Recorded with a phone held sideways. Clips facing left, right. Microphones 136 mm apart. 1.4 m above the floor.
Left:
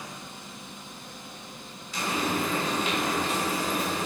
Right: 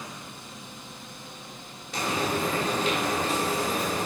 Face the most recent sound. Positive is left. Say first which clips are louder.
# right 1 dB
turn(degrees=-60)  # may be behind; listen again after turning